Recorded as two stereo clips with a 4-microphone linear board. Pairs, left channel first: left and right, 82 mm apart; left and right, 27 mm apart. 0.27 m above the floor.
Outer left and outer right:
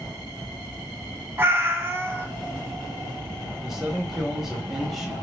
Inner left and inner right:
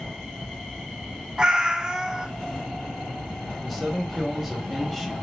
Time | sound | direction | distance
1.4 | a cat meowing | 30° right (ahead or behind) | 0.5 m
3.6 | a man speaking | 5° right (ahead or behind) | 0.9 m